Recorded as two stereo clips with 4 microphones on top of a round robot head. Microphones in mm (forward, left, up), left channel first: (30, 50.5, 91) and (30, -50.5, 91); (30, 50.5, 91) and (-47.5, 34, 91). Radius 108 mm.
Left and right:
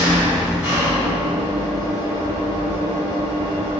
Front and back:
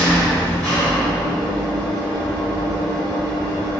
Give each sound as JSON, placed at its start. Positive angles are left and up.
{"t": 0.0, "sound": "an engine running", "azimuth_deg": -30, "distance_m": 1.6}